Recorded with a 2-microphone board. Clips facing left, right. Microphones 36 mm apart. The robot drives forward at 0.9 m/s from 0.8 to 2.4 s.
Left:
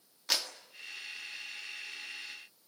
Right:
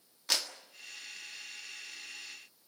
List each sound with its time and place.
0.3 s a clap: 5° left (ahead or behind), 1.9 m